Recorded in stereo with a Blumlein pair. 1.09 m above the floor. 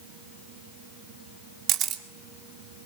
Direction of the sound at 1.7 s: 30° right.